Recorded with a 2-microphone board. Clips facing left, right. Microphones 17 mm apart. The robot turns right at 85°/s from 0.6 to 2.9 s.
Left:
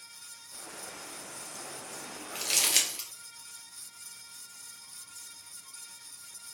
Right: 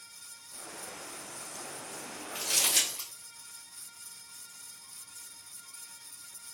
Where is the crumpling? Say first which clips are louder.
Left 1 dB; 20° left (ahead or behind), 1.1 m; by 3.1 s 60° left (ahead or behind), 1.1 m.